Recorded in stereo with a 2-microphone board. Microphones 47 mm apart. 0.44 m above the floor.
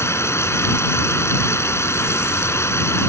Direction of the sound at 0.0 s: 80° left.